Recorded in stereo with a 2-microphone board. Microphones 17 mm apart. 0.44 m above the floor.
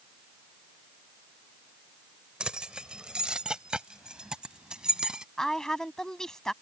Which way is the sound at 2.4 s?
60° right (ahead or behind).